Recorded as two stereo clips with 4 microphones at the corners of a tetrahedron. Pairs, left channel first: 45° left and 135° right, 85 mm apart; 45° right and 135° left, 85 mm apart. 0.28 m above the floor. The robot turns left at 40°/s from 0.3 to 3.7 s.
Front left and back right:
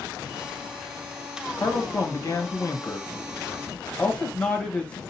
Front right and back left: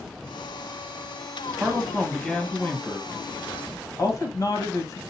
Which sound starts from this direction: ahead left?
A man speaking, at 1.6 s.